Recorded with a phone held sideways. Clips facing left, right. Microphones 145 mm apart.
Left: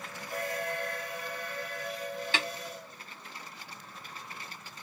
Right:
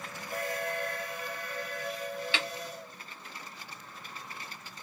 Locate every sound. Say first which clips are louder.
2.3 s a snare drum: left 3 dB; 45° left (ahead or behind), 0.9 m